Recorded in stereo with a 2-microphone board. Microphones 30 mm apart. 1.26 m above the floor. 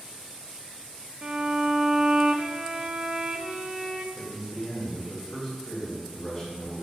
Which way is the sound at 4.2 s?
20° left (ahead or behind).